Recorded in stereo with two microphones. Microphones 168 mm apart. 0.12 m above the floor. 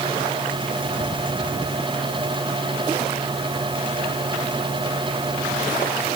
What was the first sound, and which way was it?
Only background noise.